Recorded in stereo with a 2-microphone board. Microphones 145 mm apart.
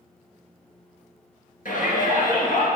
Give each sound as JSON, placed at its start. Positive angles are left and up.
{"t": 1.6, "sound": "a shout", "side_deg": 75, "distance_m": 3.5}